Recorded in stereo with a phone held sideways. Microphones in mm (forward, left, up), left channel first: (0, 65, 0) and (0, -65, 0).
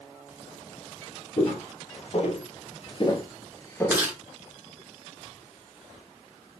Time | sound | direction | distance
1.4 | footsteps | 60° left (ahead or behind) | 1.7 m
3.9 | chewing | 15° right (ahead or behind) | 1.2 m